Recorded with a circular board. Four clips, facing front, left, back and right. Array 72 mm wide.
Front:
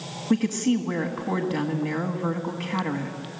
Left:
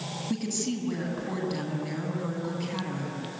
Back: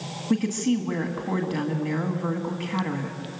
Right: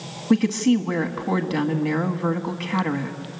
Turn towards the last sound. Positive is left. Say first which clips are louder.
# right 13 dB, front 1 dB
turn(degrees=-80)